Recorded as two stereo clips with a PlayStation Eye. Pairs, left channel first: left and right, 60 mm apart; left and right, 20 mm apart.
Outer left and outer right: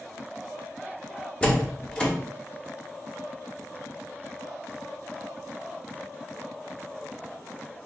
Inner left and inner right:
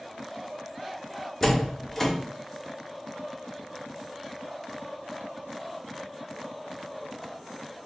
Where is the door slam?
20° left (ahead or behind), 0.8 m.